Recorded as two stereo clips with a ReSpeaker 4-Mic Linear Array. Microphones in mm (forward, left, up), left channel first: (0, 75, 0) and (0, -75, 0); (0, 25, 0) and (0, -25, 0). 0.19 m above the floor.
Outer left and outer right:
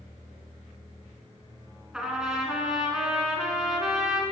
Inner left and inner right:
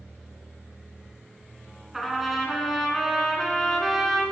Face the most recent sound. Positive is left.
turn(degrees=-5)  # may be behind; listen again after turning